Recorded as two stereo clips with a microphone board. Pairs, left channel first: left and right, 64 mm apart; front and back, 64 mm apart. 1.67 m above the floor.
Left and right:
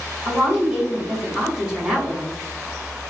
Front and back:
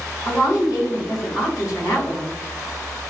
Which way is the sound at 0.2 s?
10° right.